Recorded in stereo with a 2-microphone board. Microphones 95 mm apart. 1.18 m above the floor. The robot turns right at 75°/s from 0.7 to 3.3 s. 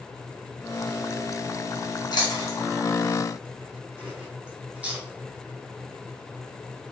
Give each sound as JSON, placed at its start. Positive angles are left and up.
{"t": 2.1, "sound": "chewing", "side_deg": 55, "distance_m": 1.0}